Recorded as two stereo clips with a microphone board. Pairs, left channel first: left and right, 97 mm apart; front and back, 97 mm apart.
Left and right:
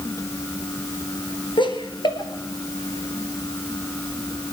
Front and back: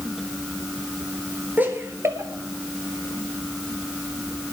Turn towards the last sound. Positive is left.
turn(degrees=145)